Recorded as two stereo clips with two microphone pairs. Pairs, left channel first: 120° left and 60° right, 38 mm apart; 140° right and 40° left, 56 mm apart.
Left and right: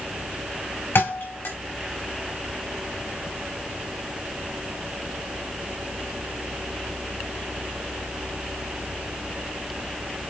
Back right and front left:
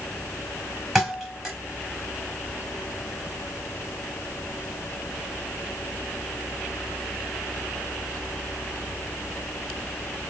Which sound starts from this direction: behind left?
A thud, at 0.9 s.